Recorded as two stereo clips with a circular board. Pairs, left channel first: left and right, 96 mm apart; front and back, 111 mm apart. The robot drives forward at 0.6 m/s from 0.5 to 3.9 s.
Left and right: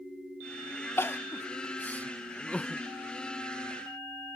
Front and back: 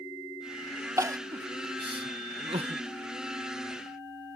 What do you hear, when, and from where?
1.0 s crying: 135° left; by 2.8 s 165° left